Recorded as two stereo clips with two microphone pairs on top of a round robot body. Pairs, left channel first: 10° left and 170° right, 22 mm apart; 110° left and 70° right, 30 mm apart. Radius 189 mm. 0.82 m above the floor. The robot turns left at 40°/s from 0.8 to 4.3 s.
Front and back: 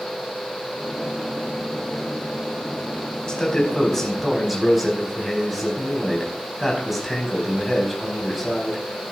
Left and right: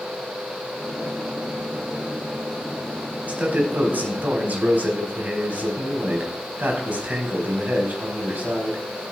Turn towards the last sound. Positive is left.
turn(degrees=-80)